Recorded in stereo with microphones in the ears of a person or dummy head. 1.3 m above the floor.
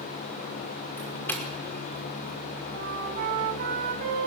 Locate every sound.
1.0 s a doorbell: 15° left (ahead or behind), 5.5 m
2.7 s a flute: 50° right (ahead or behind), 8.5 m